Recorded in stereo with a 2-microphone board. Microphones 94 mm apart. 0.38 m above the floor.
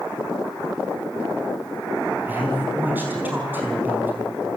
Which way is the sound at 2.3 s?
20° right (ahead or behind).